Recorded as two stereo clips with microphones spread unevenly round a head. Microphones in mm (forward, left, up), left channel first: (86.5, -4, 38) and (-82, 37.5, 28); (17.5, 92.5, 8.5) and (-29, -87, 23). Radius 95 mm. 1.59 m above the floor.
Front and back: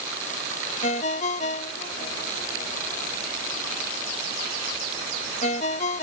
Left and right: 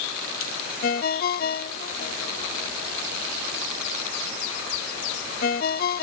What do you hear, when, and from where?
0.8 s a ringtone: 30° left